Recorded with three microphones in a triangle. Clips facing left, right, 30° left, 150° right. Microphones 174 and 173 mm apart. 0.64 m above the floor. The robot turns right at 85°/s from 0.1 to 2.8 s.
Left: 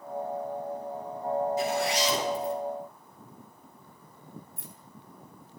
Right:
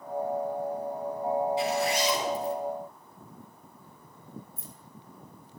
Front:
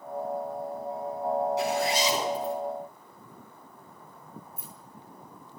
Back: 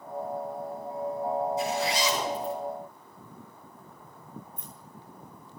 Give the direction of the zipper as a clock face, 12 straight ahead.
11 o'clock.